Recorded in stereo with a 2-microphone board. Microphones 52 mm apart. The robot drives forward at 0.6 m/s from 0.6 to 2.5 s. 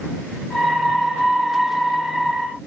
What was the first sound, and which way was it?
Only background noise.